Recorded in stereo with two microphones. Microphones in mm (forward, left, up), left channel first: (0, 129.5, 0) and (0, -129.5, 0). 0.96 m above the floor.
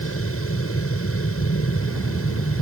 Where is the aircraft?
60° left (ahead or behind).